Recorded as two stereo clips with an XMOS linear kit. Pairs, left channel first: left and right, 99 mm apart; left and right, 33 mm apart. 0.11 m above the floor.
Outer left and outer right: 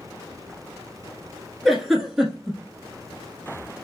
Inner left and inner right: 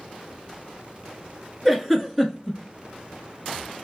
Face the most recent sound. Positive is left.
turn(degrees=-5)  # may be behind; listen again after turning